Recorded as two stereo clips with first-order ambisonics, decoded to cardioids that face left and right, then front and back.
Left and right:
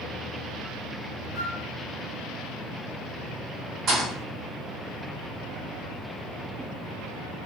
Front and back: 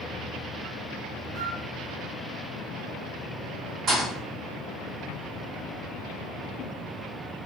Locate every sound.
1.4 s a flute: 135° left, 1.4 m
3.9 s a thud: 135° right, 1.6 m